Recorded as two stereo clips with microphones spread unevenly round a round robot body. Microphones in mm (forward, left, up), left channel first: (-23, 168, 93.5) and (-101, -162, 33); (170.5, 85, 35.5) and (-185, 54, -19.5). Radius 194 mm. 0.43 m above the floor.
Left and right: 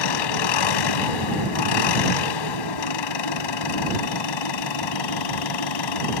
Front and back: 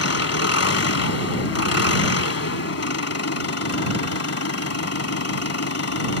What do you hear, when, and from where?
0.0 s an engine running: 55° left